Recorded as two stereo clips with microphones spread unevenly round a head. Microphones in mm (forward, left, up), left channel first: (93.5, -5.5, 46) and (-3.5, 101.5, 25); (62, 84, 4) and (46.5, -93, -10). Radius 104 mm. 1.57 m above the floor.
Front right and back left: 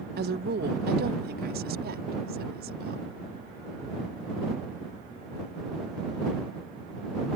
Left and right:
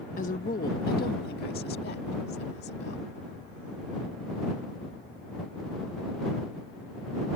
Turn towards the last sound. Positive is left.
turn(degrees=130)